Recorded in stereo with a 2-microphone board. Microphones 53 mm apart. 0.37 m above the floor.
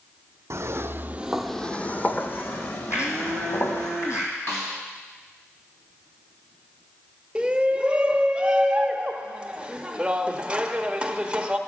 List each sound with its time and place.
0.5 s footsteps: 70° right (ahead or behind), 0.9 m; by 3.9 s 55° left (ahead or behind), 2.5 m
2.9 s a blender: 65° left (ahead or behind), 2.5 m
4.5 s a snare drum: 65° left (ahead or behind), 3.5 m
7.3 s a shout: 20° right (ahead or behind), 0.8 m